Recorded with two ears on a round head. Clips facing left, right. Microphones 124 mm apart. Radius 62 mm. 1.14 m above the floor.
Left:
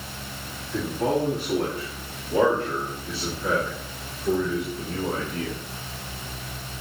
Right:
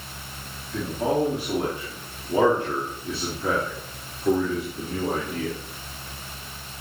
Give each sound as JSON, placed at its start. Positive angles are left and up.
{"t": 0.7, "sound": "a man speaking", "side_deg": -5, "distance_m": 3.0}